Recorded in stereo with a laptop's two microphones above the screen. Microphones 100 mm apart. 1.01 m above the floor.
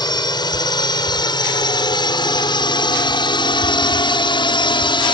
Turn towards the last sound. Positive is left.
turn(degrees=55)  # may be behind; listen again after turning